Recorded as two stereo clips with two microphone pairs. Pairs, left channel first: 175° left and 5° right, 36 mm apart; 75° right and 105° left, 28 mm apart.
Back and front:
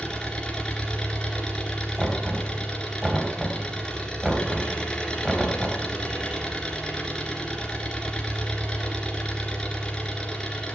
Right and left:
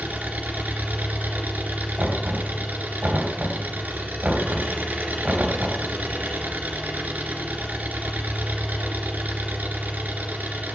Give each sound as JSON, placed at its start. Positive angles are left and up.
{"t": 0.0, "sound": "an engine running", "azimuth_deg": 105, "distance_m": 2.5}
{"t": 2.0, "sound": "knocking", "azimuth_deg": 70, "distance_m": 2.0}